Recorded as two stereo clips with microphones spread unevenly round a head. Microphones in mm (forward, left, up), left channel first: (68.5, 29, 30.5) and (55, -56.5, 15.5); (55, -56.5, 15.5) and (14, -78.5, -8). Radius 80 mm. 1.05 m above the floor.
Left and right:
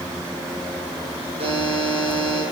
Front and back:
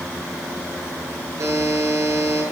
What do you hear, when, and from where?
1.4 s a buzzer: 135° right, 8.5 m